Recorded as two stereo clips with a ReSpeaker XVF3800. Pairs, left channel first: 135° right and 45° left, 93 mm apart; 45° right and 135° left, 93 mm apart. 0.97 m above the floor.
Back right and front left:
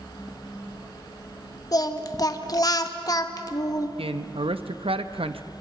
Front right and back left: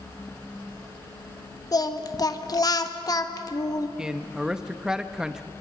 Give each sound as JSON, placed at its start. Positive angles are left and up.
{"t": 1.7, "sound": "singing", "azimuth_deg": -90, "distance_m": 1.1}
{"t": 4.0, "sound": "a man speaking", "azimuth_deg": 55, "distance_m": 0.8}